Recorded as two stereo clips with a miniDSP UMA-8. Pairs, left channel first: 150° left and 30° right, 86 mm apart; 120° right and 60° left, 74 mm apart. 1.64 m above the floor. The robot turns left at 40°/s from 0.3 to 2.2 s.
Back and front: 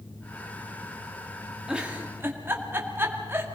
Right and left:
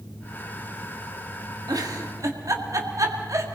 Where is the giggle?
50° left, 2 m; by 3.5 s 30° left, 2 m.